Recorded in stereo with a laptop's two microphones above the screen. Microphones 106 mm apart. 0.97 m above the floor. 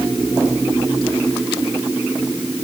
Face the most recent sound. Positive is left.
No sound to turn to.